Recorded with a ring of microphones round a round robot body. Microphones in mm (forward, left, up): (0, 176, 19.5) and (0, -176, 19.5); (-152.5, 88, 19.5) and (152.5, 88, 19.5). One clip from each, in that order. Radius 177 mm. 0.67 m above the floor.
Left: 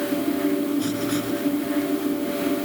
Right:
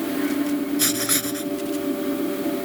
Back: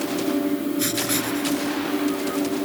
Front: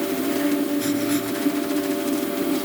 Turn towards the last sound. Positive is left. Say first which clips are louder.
# right 2 dB, front 1 dB
turn(degrees=-105)